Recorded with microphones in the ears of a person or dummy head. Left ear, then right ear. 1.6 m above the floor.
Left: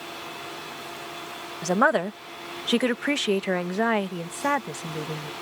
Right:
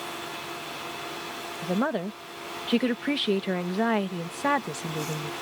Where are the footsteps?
I don't hear footsteps.